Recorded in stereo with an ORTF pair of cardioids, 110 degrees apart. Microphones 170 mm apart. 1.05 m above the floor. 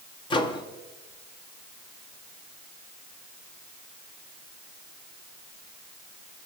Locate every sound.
0.3 s a microwave: 30° left, 1.1 m